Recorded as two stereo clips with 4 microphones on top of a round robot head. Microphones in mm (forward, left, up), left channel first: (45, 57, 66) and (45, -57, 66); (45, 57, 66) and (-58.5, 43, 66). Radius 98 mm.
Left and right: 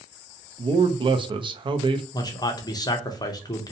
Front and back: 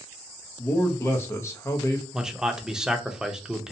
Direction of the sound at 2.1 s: 105° left.